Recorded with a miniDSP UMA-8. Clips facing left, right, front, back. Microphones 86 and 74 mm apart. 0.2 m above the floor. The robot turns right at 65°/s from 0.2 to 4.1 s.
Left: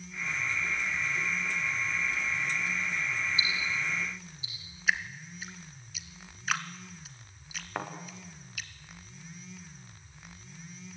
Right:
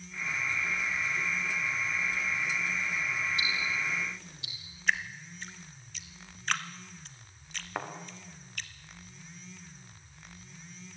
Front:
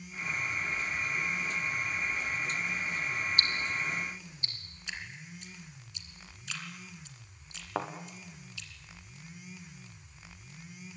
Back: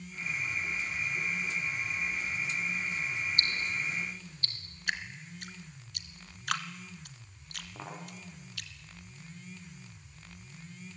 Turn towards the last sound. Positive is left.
turn(degrees=0)